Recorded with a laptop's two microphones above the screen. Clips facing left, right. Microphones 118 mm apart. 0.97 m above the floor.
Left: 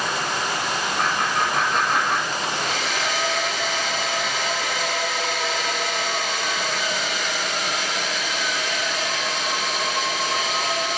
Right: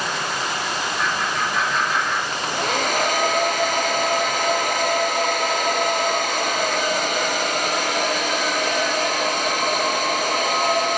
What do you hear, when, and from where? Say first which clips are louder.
1.0 s laughter: left 2 dB; 50° left (ahead or behind), 5 m
2.3 s a hair dryer: right 3 dB; 50° right (ahead or behind), 0.8 m